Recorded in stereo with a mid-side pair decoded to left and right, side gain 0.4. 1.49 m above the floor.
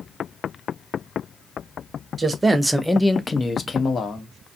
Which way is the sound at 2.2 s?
35° right.